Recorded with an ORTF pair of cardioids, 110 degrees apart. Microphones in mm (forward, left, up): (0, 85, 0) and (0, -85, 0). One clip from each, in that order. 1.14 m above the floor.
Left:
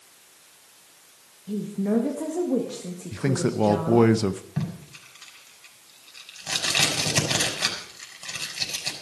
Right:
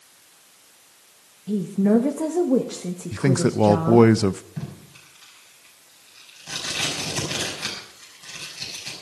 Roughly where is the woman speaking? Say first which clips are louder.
Right 6 dB; ahead right.